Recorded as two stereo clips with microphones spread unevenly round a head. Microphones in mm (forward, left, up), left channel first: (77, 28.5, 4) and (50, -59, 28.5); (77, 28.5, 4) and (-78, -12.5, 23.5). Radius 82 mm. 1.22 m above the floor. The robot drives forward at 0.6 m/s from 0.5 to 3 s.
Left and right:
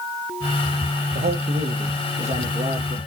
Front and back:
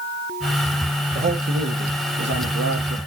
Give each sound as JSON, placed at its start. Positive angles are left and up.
{"t": 1.1, "sound": "a man speaking", "azimuth_deg": -110, "distance_m": 0.8}